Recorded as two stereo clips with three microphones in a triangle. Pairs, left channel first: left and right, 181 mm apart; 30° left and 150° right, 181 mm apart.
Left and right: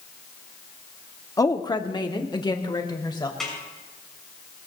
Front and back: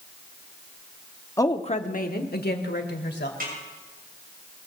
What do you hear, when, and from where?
1.4 s a woman speaking: 65° left, 0.8 m; by 3.3 s 25° left, 2.5 m
3.4 s a snare drum: straight behind, 7 m